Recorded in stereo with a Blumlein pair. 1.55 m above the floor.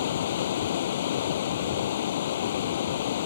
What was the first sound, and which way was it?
Running water, 60° left.